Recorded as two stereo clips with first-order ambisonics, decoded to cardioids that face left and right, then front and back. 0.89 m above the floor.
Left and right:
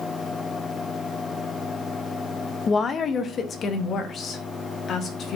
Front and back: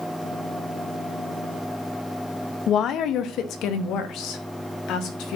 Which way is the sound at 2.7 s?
35° left.